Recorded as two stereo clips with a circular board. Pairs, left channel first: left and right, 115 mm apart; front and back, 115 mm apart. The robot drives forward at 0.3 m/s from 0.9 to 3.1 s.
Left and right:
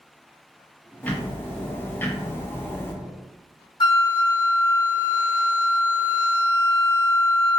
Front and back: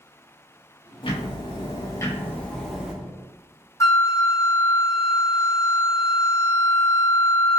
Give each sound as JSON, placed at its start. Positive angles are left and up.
{"t": 1.0, "sound": "ticking", "azimuth_deg": 15, "distance_m": 0.7}
{"t": 3.8, "sound": "a flute", "azimuth_deg": 55, "distance_m": 0.7}